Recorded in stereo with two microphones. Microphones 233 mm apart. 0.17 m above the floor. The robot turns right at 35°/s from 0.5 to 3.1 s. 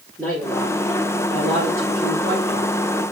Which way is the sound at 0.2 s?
170° left.